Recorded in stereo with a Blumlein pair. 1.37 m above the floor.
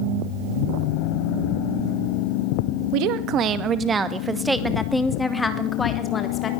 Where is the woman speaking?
45° right, 2.0 m; by 6.5 s 20° left, 3.5 m.